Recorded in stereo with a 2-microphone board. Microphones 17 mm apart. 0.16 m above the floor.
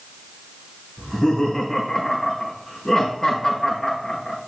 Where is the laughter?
35° left (ahead or behind), 4 m.